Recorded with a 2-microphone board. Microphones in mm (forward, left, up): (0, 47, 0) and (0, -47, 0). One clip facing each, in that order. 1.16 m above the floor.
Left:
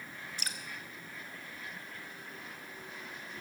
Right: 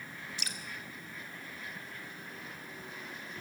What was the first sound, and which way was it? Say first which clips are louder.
Dripping: left 3 dB; 45° left (ahead or behind).